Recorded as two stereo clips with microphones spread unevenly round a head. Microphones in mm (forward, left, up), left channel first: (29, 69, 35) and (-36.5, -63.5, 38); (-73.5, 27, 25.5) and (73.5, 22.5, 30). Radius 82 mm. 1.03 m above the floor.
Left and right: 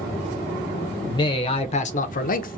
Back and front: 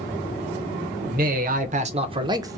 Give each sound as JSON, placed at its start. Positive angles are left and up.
{"t": 1.0, "sound": "a man speaking", "azimuth_deg": 0, "distance_m": 0.9}